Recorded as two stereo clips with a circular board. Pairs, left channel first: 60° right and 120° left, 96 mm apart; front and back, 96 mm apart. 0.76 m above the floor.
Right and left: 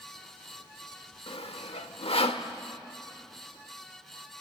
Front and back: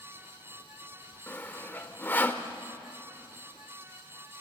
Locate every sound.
1.3 s sawing: 70° right, 1.0 m